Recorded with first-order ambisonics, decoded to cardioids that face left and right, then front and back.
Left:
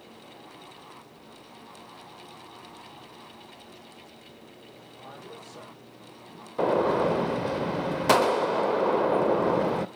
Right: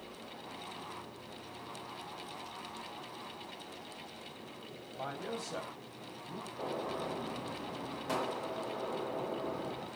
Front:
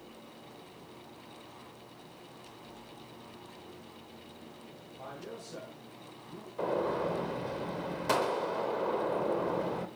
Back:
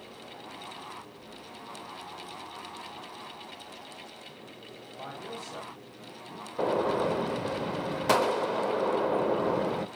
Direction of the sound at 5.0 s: 110° right.